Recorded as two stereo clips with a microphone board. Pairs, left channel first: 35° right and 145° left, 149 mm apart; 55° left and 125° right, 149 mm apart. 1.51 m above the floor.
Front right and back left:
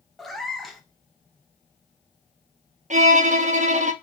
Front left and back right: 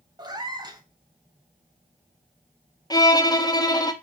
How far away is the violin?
About 0.5 m.